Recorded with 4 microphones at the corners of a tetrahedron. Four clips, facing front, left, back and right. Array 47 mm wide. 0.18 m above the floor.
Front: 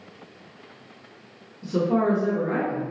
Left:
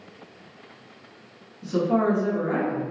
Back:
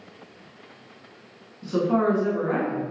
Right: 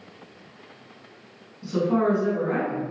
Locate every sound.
1.6 s a woman speaking: 165° left, 1.6 m